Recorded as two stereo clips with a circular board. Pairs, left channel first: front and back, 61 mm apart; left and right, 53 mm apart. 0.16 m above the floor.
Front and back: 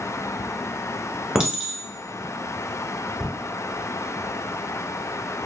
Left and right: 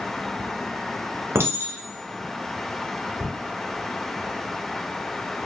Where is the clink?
100° right, 1.1 m.